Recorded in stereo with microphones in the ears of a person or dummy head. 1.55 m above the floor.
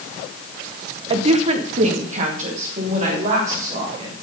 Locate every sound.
1.1 s a woman speaking: 30° right (ahead or behind), 0.9 m; by 4.1 s 45° right (ahead or behind), 4.5 m